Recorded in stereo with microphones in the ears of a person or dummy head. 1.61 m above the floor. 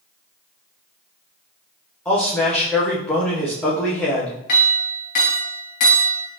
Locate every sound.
2.0 s a man speaking: 5° left (ahead or behind), 0.7 m
4.5 s a clink: 45° left (ahead or behind), 1.0 m